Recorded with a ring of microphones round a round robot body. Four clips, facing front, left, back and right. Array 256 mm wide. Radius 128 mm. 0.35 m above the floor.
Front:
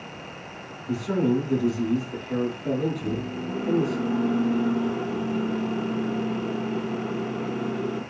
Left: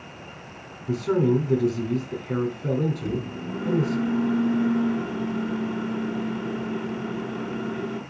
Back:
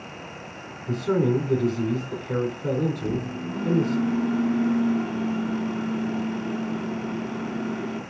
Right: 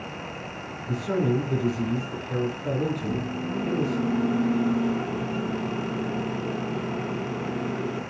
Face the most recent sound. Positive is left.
turn(degrees=110)